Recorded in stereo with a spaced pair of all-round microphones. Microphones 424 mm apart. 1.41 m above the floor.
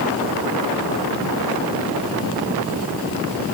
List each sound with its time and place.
Only background noise.